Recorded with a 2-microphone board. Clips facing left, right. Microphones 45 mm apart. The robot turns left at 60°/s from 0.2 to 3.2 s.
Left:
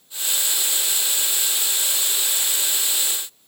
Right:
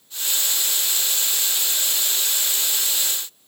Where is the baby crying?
I don't hear a baby crying.